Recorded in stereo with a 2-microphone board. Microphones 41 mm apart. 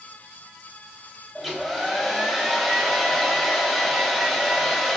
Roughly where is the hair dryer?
Centre.